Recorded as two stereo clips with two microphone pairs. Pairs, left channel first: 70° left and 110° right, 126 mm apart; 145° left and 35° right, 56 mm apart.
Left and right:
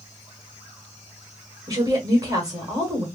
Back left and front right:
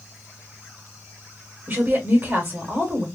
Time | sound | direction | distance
1.7 | a woman speaking | 70° right | 1.6 m